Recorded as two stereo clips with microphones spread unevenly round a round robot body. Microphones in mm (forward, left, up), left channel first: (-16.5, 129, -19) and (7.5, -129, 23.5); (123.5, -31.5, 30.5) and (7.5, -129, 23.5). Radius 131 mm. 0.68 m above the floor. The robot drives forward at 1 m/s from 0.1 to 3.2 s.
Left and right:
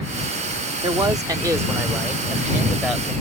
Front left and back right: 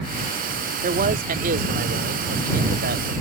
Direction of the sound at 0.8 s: 160° right.